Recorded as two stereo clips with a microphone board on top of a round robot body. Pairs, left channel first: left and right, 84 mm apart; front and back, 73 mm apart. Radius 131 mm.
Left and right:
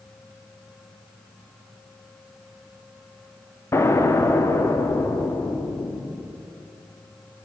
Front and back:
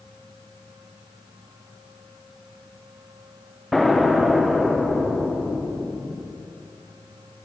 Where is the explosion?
95° left, 1.2 m.